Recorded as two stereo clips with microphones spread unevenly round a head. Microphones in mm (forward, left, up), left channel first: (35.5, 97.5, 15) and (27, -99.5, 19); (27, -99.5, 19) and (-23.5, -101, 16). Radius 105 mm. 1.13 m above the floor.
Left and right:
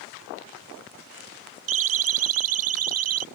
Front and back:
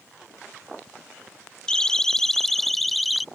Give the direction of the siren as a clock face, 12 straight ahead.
3 o'clock.